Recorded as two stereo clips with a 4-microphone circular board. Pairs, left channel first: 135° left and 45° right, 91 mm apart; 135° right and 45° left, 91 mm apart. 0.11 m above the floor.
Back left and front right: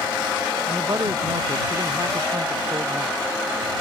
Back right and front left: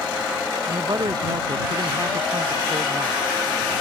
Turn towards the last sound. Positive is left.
turn(degrees=0)